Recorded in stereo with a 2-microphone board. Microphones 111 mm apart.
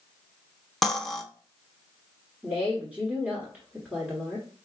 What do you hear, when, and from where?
0.8 s cutlery clinking: 5° left (ahead or behind), 0.6 m
2.4 s a woman speaking: 15° right (ahead or behind), 1.1 m